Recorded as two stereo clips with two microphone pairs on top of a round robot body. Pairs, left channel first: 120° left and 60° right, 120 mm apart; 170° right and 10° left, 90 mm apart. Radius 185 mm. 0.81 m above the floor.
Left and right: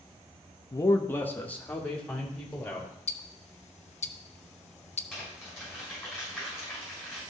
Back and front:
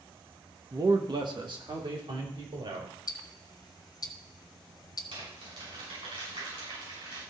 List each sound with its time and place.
0.7 s a man speaking: 60° left, 0.9 m; by 2.9 s 35° left, 3.5 m
3.1 s ticking: 145° left, 0.9 m
5.1 s crumpling: 25° left, 6 m